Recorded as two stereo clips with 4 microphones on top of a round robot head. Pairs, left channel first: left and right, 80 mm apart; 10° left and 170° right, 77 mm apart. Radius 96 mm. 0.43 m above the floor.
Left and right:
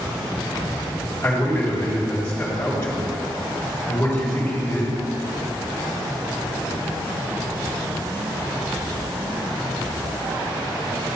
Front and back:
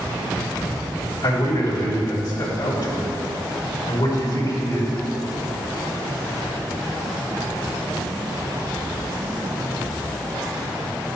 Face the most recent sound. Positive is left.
turn(degrees=15)